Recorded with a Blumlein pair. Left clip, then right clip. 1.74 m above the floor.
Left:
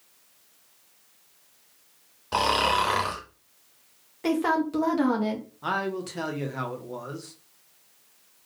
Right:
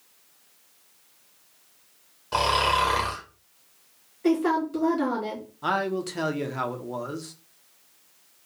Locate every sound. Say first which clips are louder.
2.3 s snoring: right 1 dB; 5° left, 1.1 m
4.2 s a woman speaking: right 1 dB; 50° left, 1.8 m
5.6 s a man speaking: right 3 dB; 10° right, 0.8 m